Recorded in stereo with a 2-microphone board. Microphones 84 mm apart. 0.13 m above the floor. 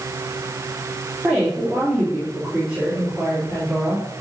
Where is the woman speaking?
10° right (ahead or behind), 5 m.